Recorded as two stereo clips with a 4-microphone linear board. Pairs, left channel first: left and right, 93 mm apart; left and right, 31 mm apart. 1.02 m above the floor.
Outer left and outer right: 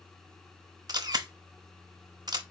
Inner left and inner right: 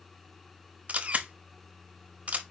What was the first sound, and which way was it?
A camera shutter, 45° right (ahead or behind).